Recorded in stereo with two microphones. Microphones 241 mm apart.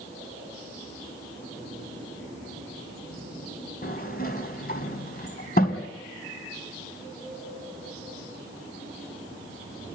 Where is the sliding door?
40° left (ahead or behind), 2 m.